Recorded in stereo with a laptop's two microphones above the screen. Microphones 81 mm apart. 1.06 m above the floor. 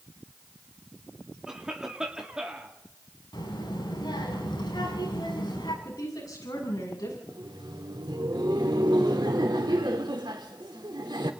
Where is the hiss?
No hiss in this recording.